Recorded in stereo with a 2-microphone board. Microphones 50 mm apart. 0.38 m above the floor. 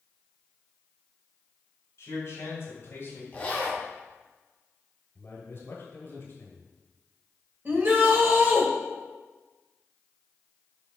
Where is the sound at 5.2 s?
50° left (ahead or behind), 1.8 m.